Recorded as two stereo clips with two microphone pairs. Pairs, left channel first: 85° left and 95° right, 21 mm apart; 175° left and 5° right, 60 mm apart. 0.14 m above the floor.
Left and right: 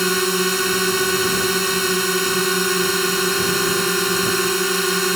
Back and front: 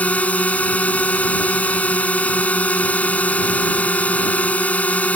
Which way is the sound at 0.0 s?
170° right.